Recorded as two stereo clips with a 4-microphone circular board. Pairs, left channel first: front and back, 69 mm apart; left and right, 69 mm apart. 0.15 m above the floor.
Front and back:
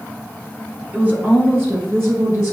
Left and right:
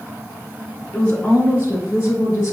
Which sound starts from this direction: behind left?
A woman speaking, at 0.9 s.